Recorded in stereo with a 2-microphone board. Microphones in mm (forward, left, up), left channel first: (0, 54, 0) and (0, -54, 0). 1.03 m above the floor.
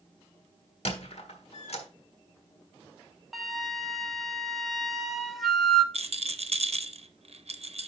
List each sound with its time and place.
0.8 s a squeak: 70° left (ahead or behind), 1.5 m
3.3 s a flute: centre (ahead or behind), 0.9 m
5.9 s a rattle: 70° right (ahead or behind), 0.7 m